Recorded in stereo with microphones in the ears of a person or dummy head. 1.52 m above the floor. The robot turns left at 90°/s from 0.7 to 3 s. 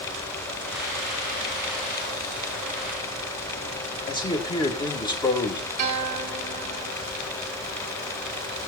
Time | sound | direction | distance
4.1 | a man speaking | 20° left (ahead or behind) | 2.0 m
5.8 | a guitar | 40° right (ahead or behind) | 3.5 m